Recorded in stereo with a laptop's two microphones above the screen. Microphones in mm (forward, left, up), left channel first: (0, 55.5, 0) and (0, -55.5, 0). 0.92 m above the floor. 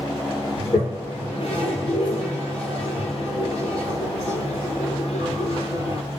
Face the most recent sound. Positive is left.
turn(degrees=65)  # may be behind; listen again after turning